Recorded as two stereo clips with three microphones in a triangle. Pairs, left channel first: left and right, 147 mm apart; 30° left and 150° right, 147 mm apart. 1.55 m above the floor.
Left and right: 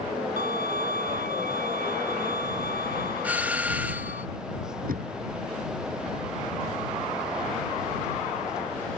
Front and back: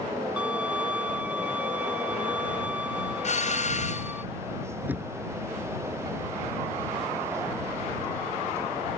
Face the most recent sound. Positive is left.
turn(degrees=-70)